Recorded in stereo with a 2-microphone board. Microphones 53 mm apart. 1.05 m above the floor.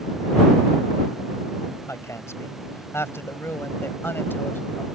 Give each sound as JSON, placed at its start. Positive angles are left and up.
{"t": 1.9, "sound": "a woman speaking", "side_deg": 65}